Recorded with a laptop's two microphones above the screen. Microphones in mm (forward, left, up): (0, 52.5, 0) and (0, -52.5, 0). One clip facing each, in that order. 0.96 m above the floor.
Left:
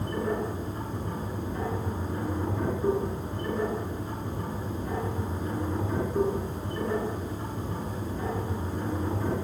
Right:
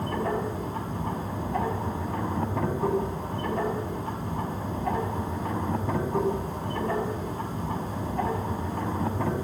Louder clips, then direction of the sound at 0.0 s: Right 1 dB; 75° right (ahead or behind).